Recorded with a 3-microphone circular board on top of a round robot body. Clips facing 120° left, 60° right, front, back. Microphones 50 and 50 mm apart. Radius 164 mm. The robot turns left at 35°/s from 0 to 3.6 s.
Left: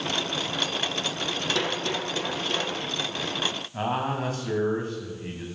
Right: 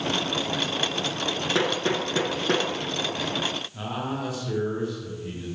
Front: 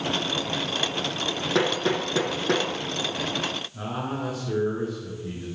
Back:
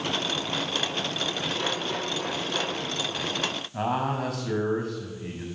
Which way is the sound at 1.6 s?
5° left.